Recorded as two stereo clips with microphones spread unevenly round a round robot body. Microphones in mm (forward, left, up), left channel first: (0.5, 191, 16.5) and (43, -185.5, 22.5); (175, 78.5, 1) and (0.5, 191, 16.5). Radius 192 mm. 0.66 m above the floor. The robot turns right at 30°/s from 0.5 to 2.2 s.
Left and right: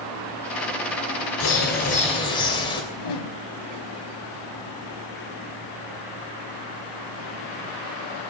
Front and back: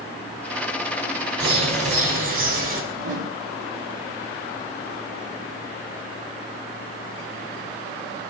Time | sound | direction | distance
1.4 | a bird | 150° left | 3 m
2.9 | a whoosh | 140° left | 1.7 m